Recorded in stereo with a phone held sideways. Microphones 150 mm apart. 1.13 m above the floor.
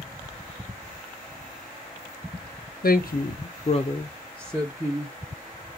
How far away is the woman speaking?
About 0.6 m.